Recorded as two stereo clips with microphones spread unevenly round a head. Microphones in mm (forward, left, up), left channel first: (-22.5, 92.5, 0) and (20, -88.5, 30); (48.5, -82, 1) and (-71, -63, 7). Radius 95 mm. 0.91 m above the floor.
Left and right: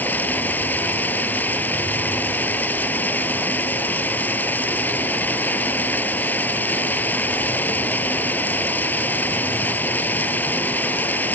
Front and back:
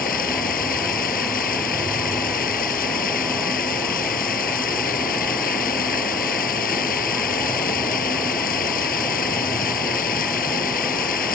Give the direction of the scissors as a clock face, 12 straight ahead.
I don't hear scissors.